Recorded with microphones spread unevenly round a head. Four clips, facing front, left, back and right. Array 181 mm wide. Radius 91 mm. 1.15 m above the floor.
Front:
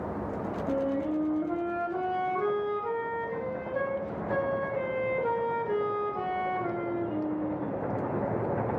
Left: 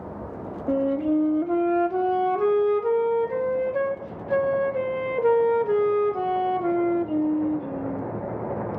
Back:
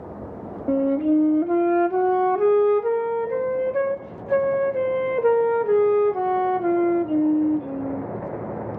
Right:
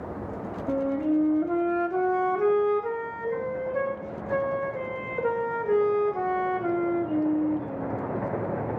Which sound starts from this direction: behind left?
A flute, at 0.7 s.